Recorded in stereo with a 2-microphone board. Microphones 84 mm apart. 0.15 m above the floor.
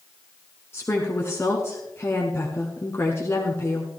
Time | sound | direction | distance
0.7 | a woman speaking | 30° left (ahead or behind) | 1.4 m